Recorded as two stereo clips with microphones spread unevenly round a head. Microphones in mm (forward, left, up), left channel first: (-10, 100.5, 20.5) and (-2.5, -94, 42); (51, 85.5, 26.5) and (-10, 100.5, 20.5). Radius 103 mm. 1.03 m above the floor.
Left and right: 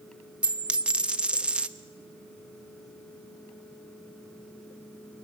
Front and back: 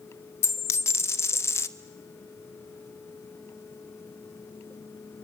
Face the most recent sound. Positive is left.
turn(degrees=-10)